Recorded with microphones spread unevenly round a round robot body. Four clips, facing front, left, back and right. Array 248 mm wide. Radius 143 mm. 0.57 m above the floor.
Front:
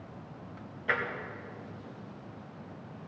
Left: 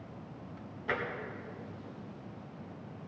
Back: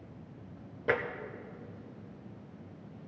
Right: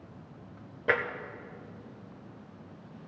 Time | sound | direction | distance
0.9 | tapping | 140° right | 1.1 m